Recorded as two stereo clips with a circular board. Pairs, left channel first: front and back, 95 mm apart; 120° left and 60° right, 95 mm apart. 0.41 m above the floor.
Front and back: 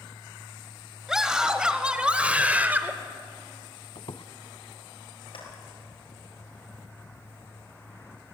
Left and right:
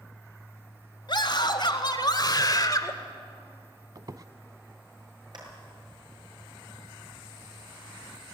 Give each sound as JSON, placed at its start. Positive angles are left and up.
{"t": 1.1, "sound": "a scream", "azimuth_deg": 95, "distance_m": 2.5}
{"t": 4.0, "sound": "a squeak", "azimuth_deg": -15, "distance_m": 0.7}
{"t": 5.3, "sound": "a clap", "azimuth_deg": -20, "distance_m": 6.5}